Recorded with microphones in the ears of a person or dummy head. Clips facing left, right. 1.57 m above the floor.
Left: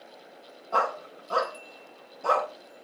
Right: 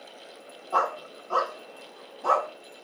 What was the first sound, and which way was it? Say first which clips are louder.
A dog barking: even; 30° left (ahead or behind).